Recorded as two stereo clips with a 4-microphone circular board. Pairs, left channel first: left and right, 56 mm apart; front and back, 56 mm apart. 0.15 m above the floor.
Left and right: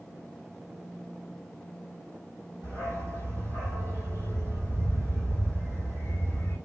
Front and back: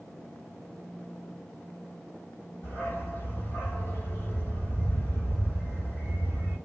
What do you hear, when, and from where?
2.6 s a dog barking: 50° right, 2.5 m